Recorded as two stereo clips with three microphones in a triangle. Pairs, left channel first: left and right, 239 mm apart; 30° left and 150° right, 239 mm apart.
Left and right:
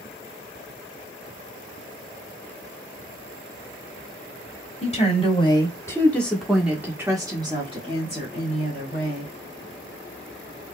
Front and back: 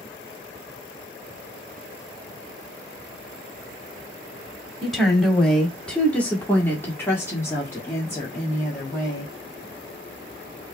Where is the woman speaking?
120° left, 1.5 m; by 9.3 s 45° right, 2 m.